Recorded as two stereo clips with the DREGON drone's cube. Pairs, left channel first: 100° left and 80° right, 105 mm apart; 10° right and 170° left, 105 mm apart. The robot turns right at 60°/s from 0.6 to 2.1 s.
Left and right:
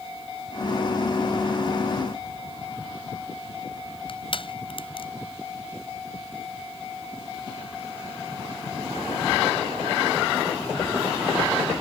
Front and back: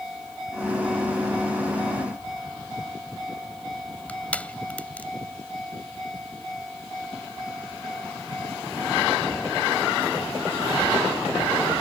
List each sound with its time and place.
4.1 s crushing: 65° left